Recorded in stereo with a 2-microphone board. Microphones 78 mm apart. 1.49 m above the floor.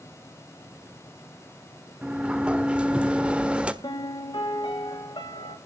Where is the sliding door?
15° right (ahead or behind), 1.4 m.